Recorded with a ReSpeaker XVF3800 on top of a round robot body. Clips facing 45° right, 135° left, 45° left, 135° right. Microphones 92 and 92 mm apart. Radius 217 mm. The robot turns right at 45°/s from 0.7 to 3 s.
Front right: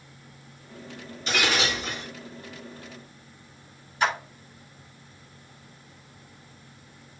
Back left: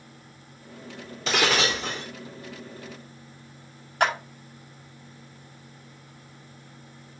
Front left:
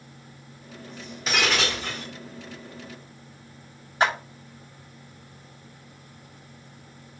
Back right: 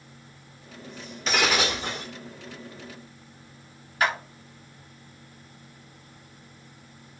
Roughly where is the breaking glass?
Behind left.